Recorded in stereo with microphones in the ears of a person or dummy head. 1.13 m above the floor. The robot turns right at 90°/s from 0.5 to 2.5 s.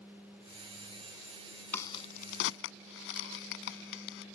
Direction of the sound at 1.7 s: 10° left (ahead or behind).